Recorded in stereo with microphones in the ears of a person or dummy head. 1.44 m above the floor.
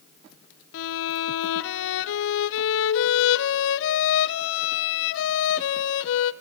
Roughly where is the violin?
Left.